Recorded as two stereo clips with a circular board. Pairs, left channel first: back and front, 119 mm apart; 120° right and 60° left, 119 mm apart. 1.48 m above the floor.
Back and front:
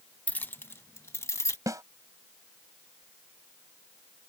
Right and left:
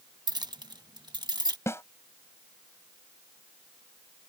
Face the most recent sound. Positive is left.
turn(degrees=-60)